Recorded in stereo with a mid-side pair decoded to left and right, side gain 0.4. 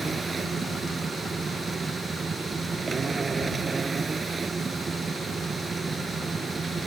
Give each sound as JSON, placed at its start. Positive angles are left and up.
{"t": 0.0, "sound": "a machine running", "azimuth_deg": -40}